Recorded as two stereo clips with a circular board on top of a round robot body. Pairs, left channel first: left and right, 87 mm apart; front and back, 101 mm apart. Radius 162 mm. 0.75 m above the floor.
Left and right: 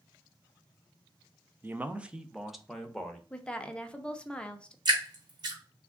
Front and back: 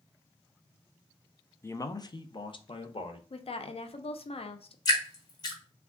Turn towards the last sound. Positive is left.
turn(degrees=-55)